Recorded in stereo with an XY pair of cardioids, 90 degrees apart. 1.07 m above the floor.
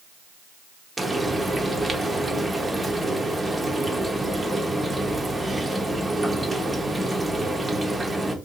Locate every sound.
1.0 s frying: 20° right, 0.8 m